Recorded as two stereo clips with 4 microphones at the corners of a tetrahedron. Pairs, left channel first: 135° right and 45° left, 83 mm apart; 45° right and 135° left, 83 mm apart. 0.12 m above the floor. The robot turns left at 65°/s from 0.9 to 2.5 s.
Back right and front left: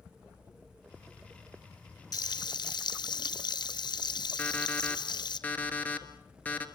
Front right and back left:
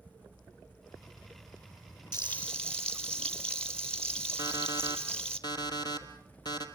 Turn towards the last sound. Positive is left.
turn(degrees=-65)